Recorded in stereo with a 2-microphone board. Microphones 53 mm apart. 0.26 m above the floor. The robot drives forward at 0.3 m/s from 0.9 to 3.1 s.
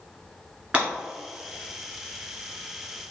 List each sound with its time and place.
0.7 s breaking glass: 25° right (ahead or behind), 1.7 m